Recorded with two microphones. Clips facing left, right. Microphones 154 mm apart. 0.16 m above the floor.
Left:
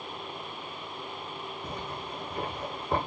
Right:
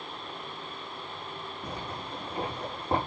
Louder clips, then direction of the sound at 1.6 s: Right 1 dB; 80° right.